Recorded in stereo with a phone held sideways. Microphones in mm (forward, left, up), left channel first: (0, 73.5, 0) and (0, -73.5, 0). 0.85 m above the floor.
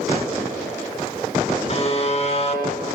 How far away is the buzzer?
About 6.5 m.